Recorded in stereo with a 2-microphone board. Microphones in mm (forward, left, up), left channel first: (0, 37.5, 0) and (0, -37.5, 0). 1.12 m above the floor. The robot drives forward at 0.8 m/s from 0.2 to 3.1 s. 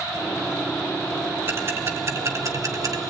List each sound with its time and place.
1.5 s ticking: 35° right (ahead or behind), 2.5 m; by 3.0 s 55° right (ahead or behind), 1.6 m